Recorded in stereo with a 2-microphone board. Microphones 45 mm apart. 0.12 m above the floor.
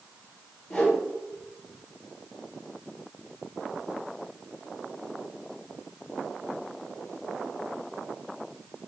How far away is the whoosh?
About 1.6 m.